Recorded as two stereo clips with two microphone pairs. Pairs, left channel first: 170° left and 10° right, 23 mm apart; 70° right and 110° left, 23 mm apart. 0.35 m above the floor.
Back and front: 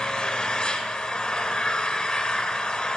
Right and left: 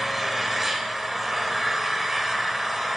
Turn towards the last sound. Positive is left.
turn(degrees=-175)